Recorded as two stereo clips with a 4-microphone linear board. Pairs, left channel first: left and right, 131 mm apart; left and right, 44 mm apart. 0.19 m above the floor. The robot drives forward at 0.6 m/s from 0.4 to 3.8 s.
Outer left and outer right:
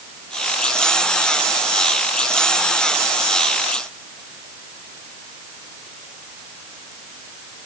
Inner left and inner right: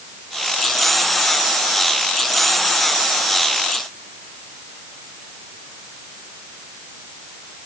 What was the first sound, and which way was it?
Only background noise.